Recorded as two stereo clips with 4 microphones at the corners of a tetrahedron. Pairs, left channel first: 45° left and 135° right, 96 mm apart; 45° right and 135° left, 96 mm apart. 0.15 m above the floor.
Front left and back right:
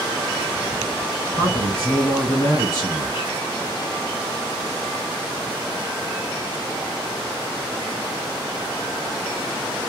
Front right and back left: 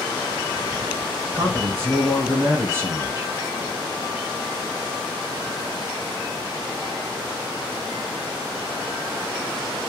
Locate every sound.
1.3 s a man speaking: 75° left, 1.6 m